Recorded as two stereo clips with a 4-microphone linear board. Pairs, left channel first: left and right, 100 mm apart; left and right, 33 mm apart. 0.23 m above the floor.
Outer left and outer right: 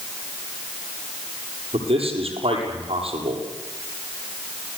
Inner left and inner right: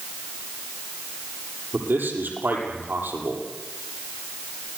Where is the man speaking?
80° right, 8 m.